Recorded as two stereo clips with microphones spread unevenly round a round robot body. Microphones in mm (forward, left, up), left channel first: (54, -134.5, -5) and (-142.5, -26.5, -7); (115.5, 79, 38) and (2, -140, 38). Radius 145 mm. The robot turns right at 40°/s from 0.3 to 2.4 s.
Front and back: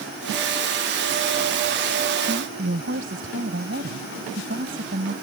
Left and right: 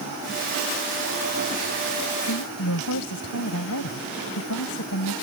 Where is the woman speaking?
85° left; by 5.1 s 95° left.